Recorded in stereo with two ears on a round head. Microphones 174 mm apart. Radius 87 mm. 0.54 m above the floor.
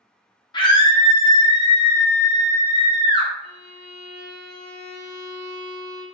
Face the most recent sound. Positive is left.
turn(degrees=40)  # may be behind; listen again after turning